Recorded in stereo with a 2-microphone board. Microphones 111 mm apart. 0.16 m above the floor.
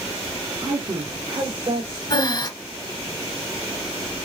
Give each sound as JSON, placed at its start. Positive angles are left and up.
{"t": 0.6, "sound": "a woman speaking", "side_deg": -40, "distance_m": 1.4}
{"t": 2.1, "sound": "breathing", "side_deg": 40, "distance_m": 1.1}